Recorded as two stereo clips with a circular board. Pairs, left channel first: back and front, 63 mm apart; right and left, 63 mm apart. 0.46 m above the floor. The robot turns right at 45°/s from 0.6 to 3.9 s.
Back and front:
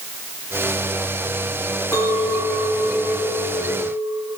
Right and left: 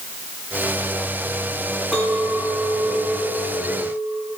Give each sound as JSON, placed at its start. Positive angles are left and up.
{"t": 1.9, "sound": "a clink", "azimuth_deg": -170, "distance_m": 3.5}